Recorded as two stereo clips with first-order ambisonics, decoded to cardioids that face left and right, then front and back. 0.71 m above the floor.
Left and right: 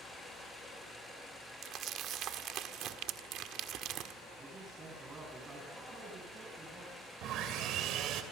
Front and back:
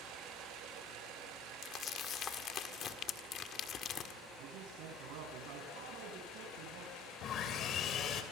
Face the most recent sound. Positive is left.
turn(degrees=-50)